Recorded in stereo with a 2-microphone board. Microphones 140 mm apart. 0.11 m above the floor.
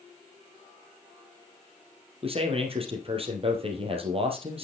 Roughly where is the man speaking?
Right.